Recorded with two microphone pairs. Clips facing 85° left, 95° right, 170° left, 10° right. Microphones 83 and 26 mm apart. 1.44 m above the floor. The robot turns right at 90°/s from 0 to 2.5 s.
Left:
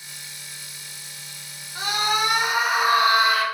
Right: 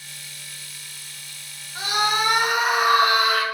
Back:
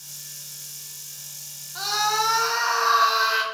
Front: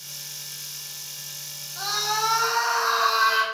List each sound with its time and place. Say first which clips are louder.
1.8 s a scream: right 1 dB, back 3 dB; 165° left, 0.8 m; by 3.4 s 130° right, 0.8 m